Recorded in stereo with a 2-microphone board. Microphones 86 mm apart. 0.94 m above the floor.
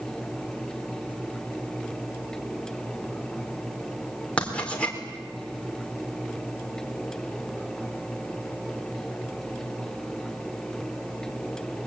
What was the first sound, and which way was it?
Writing, 15° left (ahead or behind).